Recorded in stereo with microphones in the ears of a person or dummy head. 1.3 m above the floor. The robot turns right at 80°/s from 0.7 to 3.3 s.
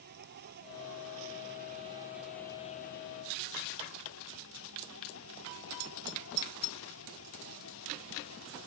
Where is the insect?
120° right; by 8.7 s 85° left.